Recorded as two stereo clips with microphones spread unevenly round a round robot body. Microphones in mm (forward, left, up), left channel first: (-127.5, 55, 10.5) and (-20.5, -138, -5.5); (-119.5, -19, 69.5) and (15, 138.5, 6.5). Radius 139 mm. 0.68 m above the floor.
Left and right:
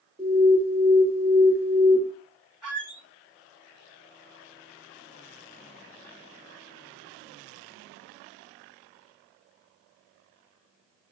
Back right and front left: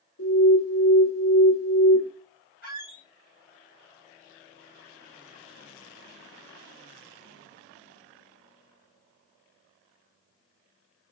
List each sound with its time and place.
0.2 s an alarm: 140° right, 1.5 m
2.6 s a squeak: 155° right, 2.5 m